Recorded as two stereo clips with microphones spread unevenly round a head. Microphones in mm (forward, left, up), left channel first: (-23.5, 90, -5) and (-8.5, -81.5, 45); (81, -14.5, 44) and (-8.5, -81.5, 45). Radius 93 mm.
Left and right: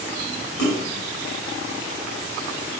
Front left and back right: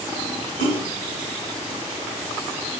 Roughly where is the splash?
Left.